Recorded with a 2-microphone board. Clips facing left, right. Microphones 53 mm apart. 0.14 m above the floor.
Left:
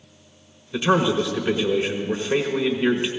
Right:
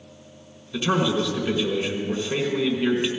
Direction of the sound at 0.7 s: 20° left (ahead or behind).